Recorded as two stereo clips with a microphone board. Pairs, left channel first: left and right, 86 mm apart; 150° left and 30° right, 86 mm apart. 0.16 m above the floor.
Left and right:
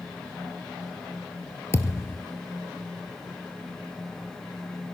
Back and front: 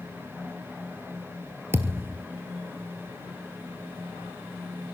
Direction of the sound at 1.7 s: 30° left.